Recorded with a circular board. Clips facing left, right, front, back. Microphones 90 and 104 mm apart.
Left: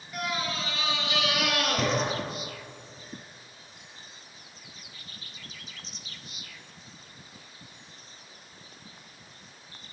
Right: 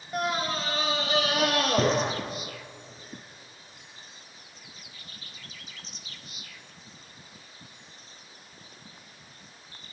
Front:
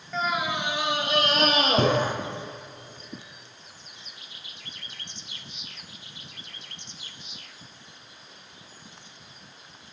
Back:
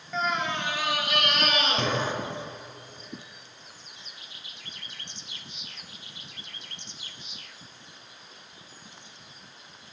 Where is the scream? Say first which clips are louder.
Right 4 dB, front 1 dB; 90° right, 1.7 m; by 2.1 s 35° right, 3 m.